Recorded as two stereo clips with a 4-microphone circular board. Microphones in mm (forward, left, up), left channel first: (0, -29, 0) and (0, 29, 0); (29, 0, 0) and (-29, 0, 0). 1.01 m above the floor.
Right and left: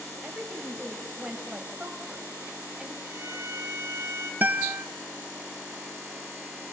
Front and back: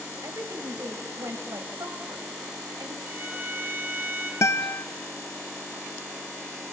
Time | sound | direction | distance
0.2 | a woman speaking | 155° left | 5 m
3.0 | a violin | 120° left | 5 m
4.4 | a guitar | 35° left | 0.8 m